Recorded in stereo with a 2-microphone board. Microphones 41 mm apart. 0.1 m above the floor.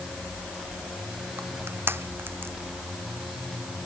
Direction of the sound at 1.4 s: 75° right (ahead or behind).